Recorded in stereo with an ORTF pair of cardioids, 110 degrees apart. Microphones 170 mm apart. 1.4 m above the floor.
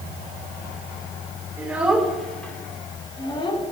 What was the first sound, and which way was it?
A child speaking, 10° right.